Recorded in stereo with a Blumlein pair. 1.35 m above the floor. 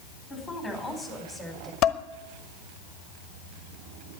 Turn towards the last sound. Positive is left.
turn(degrees=30)